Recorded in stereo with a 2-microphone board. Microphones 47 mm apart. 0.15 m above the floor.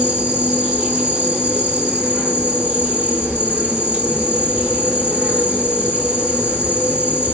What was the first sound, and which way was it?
An insect, 30° right (ahead or behind).